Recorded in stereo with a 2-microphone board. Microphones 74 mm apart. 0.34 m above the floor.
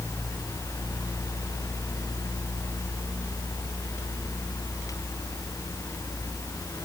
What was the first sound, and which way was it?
Only background noise.